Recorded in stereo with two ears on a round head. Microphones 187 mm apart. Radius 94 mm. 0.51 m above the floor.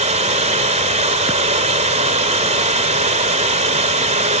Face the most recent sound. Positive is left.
turn(degrees=-35)  # may be behind; listen again after turning